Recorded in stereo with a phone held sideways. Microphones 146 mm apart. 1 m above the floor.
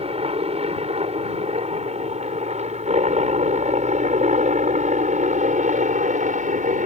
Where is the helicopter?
45° right (ahead or behind); by 6.9 s 60° right (ahead or behind).